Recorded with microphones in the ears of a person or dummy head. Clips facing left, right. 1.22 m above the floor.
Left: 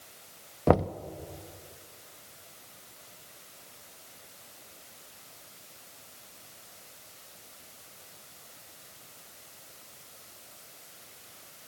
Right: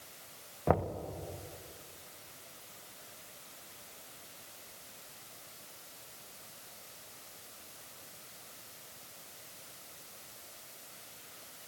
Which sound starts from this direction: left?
Knocking, at 0.7 s.